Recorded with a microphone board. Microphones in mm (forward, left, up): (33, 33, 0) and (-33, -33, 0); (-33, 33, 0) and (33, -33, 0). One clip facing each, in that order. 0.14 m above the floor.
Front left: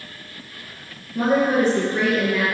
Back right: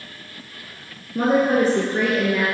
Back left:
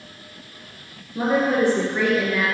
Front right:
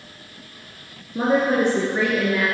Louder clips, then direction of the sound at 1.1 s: Back right 1 dB, front right 1 dB; 100° right.